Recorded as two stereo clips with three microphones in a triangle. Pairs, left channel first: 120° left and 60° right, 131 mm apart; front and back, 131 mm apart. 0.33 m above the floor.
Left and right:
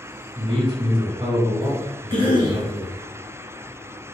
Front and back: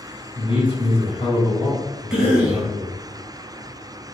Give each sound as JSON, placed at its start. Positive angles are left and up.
{"t": 0.3, "sound": "a man speaking", "azimuth_deg": -25, "distance_m": 1.5}
{"t": 2.1, "sound": "a cough", "azimuth_deg": -100, "distance_m": 1.4}